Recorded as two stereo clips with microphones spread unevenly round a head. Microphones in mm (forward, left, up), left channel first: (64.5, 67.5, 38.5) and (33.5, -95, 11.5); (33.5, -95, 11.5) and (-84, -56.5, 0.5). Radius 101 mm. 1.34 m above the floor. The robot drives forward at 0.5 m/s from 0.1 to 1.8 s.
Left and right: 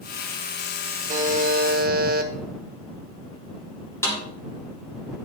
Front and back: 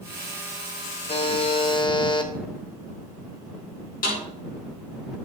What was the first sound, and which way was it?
A buzzer, 55° right.